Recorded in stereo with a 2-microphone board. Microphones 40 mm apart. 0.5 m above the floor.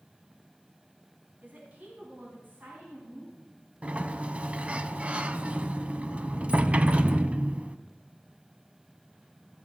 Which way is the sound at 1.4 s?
40° right (ahead or behind).